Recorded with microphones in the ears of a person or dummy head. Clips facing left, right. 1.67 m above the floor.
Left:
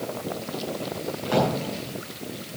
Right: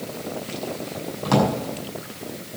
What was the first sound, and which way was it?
A drawer, 75° right (ahead or behind).